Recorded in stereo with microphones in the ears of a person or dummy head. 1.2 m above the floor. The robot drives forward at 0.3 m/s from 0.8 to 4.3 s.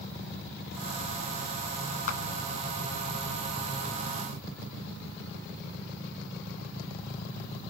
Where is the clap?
45° left (ahead or behind), 1.5 m.